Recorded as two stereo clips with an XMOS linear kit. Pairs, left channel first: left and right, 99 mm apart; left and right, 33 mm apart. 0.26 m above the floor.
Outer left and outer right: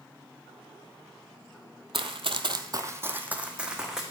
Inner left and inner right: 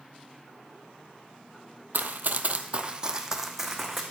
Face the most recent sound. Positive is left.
turn(degrees=-5)  # may be behind; listen again after turning